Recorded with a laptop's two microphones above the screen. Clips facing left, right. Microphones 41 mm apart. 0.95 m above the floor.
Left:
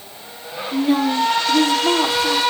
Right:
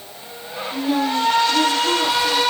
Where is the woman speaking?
65° left (ahead or behind), 6 m.